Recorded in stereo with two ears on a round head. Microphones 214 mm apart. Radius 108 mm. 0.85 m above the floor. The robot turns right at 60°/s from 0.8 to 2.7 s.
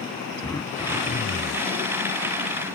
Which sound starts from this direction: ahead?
Throat clearing, at 0.4 s.